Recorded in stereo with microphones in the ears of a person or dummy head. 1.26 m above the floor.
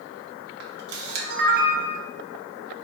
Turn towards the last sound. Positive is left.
turn(degrees=-50)  # may be behind; listen again after turning